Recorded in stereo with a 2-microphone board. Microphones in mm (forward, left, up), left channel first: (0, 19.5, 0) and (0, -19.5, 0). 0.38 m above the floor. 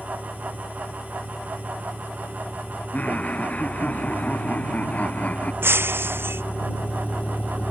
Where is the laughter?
45° left (ahead or behind).